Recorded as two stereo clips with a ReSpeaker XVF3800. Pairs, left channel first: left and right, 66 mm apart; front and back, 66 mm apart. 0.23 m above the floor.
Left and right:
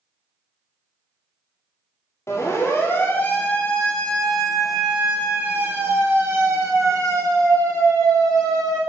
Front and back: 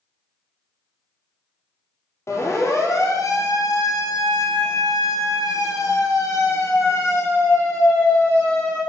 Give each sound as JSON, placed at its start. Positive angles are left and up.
{"t": 2.3, "sound": "a siren", "azimuth_deg": 45, "distance_m": 4.5}